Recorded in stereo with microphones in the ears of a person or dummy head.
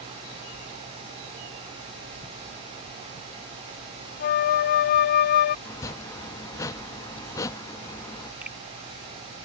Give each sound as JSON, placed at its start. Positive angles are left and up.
{"t": 4.2, "sound": "a flute", "side_deg": 45}
{"t": 5.7, "sound": "chopping", "side_deg": 20}
{"t": 8.4, "sound": "a finger snap", "side_deg": -5}